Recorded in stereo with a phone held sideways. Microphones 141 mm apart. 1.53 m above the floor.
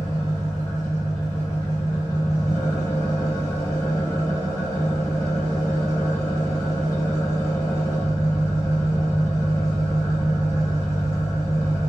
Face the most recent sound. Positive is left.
turn(degrees=20)  # may be behind; listen again after turning